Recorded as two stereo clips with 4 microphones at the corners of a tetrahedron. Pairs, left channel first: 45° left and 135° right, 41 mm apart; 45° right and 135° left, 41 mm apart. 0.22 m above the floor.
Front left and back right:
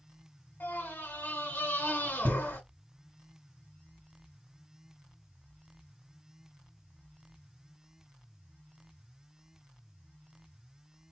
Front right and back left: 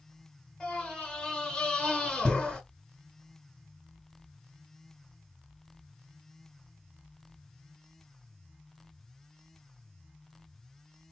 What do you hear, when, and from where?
0.6 s a scream: 30° left, 2.5 m